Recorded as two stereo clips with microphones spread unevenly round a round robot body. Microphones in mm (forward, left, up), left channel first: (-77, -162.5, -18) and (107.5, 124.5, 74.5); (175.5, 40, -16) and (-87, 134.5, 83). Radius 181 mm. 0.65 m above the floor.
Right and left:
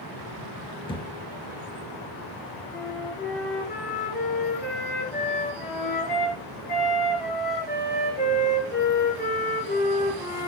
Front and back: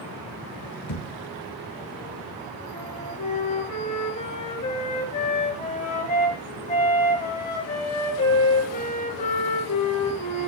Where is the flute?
55° right, 10 m.